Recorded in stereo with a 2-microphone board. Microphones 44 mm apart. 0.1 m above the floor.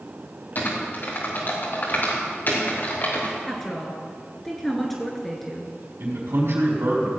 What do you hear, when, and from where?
0.6 s typing on a keyboard: 45° left (ahead or behind), 3.5 m
3.5 s a woman speaking: 5° left (ahead or behind), 1.4 m
6.0 s a man speaking: 70° right (ahead or behind), 4 m